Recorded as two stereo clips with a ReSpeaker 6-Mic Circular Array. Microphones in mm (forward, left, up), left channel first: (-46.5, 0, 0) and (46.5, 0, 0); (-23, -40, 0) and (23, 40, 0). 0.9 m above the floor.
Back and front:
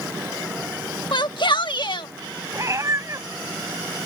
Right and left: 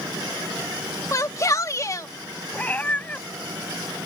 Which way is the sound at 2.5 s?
50° right.